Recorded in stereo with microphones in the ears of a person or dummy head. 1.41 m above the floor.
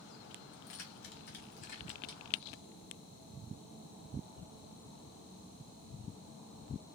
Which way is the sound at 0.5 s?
70° left (ahead or behind).